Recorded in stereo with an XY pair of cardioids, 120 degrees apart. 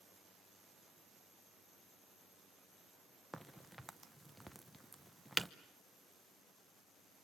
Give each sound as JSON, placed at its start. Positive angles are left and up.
{"t": 3.3, "sound": "a crack", "azimuth_deg": 0, "distance_m": 0.8}